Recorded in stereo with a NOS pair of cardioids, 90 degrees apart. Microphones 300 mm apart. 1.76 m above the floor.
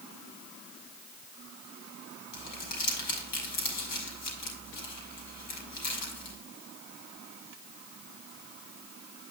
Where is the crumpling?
70° left, 5 m.